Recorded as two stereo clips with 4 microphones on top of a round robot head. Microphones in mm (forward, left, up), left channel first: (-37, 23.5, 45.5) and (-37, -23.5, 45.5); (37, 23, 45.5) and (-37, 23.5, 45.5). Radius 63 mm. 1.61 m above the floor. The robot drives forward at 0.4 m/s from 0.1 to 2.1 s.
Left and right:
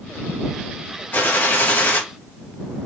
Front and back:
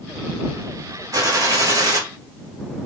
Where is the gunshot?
135° left, 3.5 m; by 2.0 s 140° left, 3.5 m.